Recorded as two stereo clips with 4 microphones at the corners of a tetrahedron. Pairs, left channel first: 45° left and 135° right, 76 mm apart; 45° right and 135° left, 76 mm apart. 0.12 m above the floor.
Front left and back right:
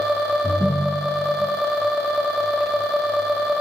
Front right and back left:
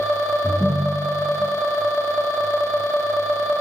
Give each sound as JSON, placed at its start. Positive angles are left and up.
{"t": 0.4, "sound": "a ringtone", "azimuth_deg": 100, "distance_m": 1.8}